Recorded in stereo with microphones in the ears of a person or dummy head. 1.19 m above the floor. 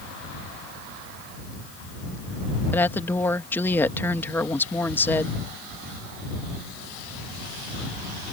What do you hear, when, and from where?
2.7 s a woman speaking: 15° left (ahead or behind)